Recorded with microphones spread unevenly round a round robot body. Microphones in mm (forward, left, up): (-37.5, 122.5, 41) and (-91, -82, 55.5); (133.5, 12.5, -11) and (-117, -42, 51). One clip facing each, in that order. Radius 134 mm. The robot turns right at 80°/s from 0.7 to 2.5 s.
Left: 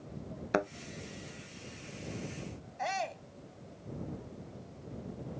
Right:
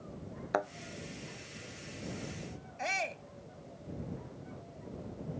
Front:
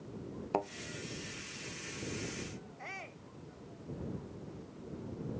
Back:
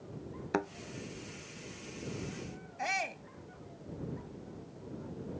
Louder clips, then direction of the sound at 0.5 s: Left 3 dB, back 2 dB; 135° left.